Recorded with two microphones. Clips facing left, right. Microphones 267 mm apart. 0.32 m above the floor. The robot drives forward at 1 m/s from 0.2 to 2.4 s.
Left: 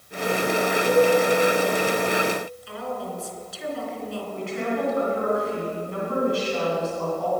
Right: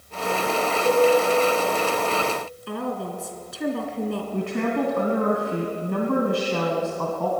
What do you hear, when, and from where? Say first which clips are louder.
0.8 s a cowbell: even; 50° right (ahead or behind), 3.5 m
2.7 s a woman speaking: right 8 dB; 65° right (ahead or behind), 3 m
4.3 s a woman speaking: right 2 dB; 65° right (ahead or behind), 2.5 m